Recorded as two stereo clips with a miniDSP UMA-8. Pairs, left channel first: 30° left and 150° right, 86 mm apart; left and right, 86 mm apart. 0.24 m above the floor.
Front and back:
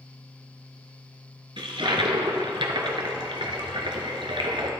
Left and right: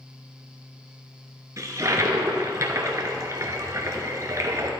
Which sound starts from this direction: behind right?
A toilet flushing, at 1.6 s.